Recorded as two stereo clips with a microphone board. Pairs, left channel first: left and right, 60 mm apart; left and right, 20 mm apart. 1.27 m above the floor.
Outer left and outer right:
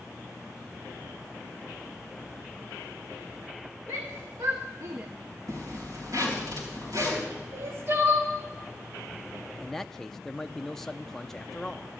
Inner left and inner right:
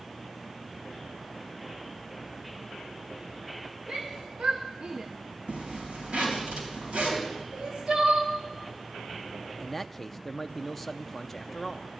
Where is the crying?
50° right (ahead or behind), 2.5 m.